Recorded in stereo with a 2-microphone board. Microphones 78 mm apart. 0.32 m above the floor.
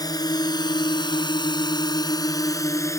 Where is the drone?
55° left (ahead or behind); by 3.0 s 40° left (ahead or behind).